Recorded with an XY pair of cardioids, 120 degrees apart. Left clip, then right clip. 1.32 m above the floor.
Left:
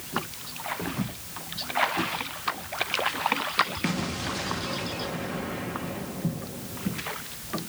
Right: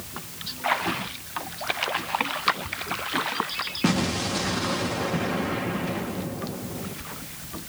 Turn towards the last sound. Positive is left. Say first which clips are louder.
# right 5 dB
turn(degrees=-40)